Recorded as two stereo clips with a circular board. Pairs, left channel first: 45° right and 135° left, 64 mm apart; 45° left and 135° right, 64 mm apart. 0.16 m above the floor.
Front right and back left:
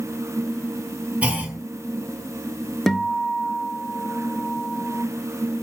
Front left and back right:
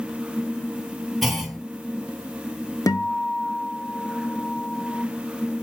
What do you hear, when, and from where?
1.2 s a clunk: 135° left, 1.1 m
2.9 s a guitar: 35° left, 0.5 m